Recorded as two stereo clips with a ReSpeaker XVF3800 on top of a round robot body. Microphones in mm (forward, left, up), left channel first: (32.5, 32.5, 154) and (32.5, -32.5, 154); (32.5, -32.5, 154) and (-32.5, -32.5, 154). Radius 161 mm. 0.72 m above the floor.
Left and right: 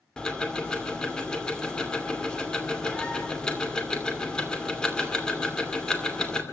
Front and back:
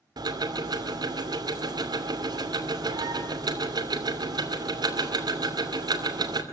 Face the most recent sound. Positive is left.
turn(degrees=170)